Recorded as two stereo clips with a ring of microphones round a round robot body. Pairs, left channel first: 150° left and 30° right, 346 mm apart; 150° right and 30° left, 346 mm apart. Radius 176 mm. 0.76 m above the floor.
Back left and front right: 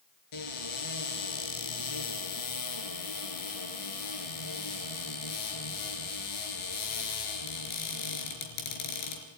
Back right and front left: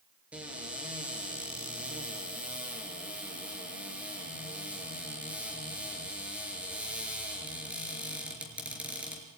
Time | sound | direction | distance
0.3 | a cupboard door | 115° left | 5 m